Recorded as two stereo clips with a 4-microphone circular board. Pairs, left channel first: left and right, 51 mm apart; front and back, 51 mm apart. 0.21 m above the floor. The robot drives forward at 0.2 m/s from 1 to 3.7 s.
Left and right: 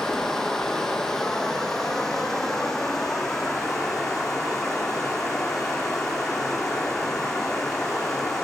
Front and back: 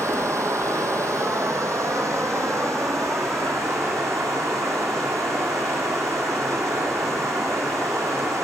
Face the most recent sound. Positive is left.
turn(degrees=175)